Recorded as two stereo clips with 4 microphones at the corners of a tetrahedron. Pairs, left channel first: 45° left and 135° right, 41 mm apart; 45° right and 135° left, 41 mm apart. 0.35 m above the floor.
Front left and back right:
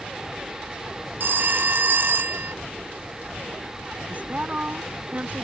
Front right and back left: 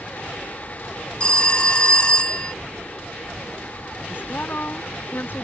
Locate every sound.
1.2 s a phone ringing: 110° right
4.1 s a woman speaking: 85° right